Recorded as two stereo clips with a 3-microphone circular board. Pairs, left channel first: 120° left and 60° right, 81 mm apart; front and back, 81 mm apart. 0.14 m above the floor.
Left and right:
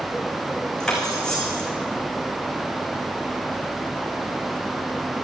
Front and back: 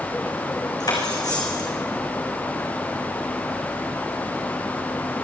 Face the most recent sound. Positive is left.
turn(degrees=35)